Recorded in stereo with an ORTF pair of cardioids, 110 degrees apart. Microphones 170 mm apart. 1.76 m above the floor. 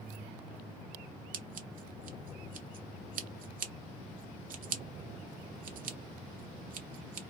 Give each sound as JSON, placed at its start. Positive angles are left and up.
{"t": 1.3, "sound": "scissors", "azimuth_deg": -60, "distance_m": 1.1}